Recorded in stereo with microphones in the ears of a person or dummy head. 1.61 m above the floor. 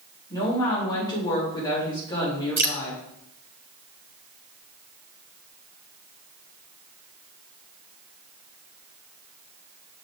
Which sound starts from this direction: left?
A woman speaking, at 0.3 s.